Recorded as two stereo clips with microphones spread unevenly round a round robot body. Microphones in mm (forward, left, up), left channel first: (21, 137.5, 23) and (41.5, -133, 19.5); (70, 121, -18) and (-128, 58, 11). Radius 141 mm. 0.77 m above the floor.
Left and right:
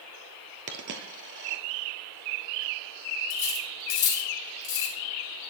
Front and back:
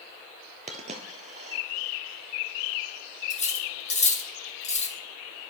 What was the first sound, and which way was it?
A dropped coin, 125° right.